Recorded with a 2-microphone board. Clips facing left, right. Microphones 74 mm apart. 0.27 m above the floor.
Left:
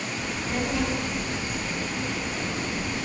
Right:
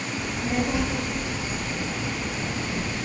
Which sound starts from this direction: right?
A child speaking, at 0.2 s.